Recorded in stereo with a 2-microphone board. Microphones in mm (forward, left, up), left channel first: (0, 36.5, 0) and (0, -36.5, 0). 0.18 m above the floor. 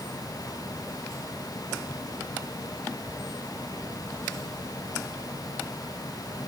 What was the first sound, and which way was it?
Only background noise.